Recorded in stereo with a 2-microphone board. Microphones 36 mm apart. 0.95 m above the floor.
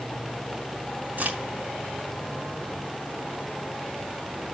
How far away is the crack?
About 3 m.